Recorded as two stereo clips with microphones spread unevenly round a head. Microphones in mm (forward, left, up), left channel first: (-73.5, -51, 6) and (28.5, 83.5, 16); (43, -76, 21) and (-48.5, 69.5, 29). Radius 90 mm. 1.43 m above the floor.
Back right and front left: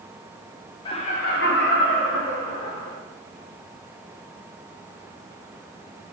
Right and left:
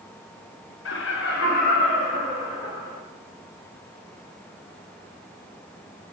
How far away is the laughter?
About 0.6 m.